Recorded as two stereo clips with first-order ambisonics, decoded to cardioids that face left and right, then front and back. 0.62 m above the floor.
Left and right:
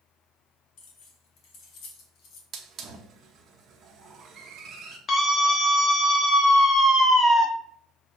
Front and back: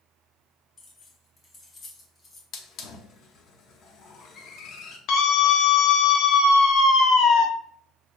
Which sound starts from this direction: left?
Keys jangling, at 0.8 s.